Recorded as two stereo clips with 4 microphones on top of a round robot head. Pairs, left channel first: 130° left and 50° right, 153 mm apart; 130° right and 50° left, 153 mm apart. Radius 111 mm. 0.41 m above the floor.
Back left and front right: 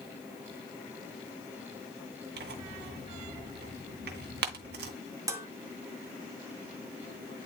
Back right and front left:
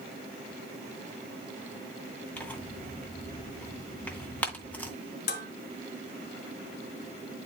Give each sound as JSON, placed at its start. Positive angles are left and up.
{"t": 2.4, "sound": "tearing paper", "azimuth_deg": -50, "distance_m": 2.0}
{"t": 5.3, "sound": "dishes clattering", "azimuth_deg": -120, "distance_m": 2.5}